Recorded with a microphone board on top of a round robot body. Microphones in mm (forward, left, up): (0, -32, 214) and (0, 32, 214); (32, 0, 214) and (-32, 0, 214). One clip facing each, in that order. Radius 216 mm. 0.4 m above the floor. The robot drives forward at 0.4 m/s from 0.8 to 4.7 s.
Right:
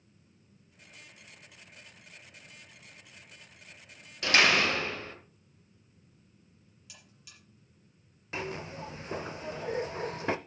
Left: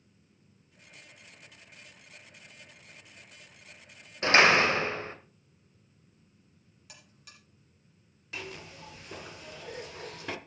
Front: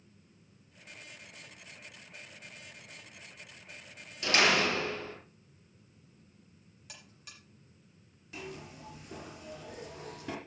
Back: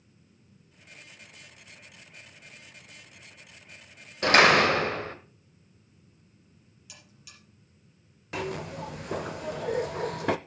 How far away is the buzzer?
About 6 m.